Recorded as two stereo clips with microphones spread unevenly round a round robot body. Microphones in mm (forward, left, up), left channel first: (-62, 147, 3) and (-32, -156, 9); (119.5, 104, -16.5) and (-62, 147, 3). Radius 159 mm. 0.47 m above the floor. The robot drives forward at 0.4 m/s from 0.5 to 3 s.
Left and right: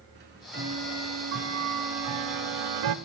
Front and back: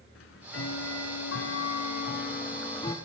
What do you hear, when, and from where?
0.1 s ticking: 25° right, 1.1 m; by 3.0 s 90° right, 0.5 m